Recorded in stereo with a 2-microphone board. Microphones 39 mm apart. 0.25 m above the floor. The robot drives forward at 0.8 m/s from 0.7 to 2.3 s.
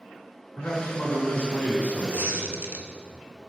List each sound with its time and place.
0.6 s a man speaking: 55° left (ahead or behind), 3.5 m; by 2.5 s 65° left (ahead or behind), 3 m
2.1 s a squeak: 60° right (ahead or behind), 1.0 m; by 2.9 s 55° right (ahead or behind), 1.1 m